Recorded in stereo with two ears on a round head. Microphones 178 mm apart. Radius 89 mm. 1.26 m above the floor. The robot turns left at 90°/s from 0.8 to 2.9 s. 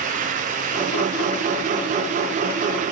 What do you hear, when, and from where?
Only background noise.